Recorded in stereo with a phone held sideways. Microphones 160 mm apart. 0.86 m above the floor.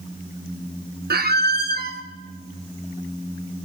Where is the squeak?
80° right, 0.6 m.